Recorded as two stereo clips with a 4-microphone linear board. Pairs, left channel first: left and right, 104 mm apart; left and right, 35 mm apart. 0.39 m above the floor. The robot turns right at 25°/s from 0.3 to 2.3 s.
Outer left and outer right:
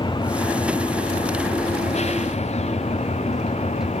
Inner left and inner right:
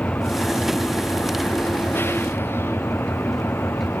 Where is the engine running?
45° left; by 4.0 s 95° left.